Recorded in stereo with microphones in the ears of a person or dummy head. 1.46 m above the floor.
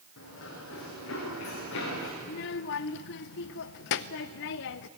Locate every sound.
0.2 s running footsteps: 75° left (ahead or behind), 6.5 m
2.2 s a child speaking: 60° left (ahead or behind), 0.7 m